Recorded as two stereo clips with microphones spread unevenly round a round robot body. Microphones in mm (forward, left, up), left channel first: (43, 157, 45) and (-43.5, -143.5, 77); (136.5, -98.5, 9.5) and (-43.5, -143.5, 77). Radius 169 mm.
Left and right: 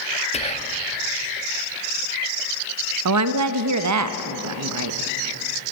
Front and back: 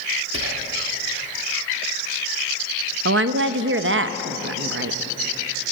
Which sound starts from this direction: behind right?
A woman speaking, at 3.0 s.